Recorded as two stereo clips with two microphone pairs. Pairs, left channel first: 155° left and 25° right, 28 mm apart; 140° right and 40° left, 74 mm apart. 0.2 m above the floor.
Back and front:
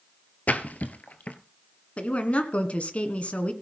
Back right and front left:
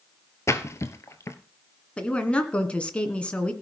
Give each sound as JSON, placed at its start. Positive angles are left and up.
{"t": 0.5, "sound": "a splash", "azimuth_deg": 170, "distance_m": 1.1}
{"t": 2.0, "sound": "a woman speaking", "azimuth_deg": 150, "distance_m": 1.9}